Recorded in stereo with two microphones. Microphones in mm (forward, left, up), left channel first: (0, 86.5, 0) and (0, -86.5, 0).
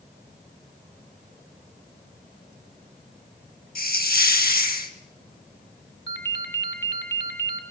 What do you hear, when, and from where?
3.8 s a hiss: 60° left (ahead or behind), 1.7 m
6.1 s a ringtone: 80° left, 2.5 m